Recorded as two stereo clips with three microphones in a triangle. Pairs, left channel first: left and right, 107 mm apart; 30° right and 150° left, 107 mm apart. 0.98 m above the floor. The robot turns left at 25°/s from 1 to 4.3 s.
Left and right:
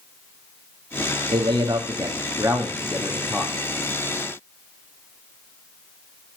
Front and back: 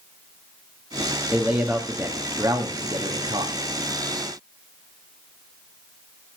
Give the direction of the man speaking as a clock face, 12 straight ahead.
4 o'clock.